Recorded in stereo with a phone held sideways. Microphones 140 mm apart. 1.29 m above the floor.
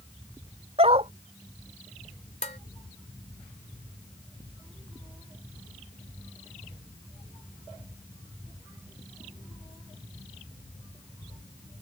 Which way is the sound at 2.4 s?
55° left (ahead or behind).